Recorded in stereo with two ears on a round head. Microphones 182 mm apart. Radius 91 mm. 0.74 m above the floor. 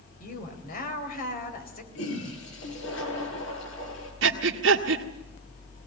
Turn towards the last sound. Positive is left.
turn(degrees=-70)  # may be behind; listen again after turning